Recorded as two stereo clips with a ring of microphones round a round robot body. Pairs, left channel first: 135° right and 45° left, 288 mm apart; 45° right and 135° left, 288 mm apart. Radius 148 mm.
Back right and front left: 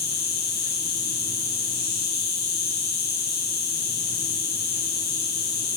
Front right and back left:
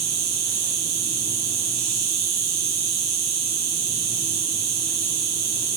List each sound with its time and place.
0.0 s an insect: 170° left, 1.0 m